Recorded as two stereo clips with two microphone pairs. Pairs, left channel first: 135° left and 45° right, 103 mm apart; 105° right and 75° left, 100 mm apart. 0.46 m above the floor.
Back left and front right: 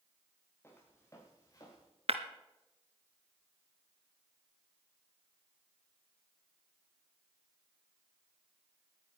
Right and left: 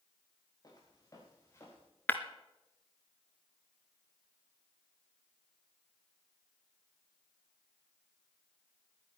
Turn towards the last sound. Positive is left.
turn(degrees=-35)